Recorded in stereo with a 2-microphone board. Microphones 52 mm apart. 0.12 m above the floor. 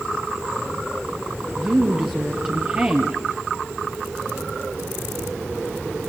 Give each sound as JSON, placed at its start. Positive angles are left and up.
{"t": 1.6, "sound": "a woman speaking", "side_deg": -25, "distance_m": 2.5}